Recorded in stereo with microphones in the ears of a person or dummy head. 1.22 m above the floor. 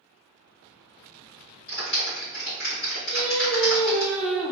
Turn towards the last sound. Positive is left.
turn(degrees=-5)  # may be behind; listen again after turning